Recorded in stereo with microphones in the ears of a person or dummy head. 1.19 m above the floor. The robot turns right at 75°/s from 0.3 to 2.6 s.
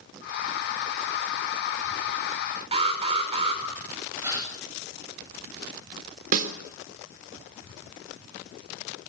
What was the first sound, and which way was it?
An alarm, 35° right (ahead or behind).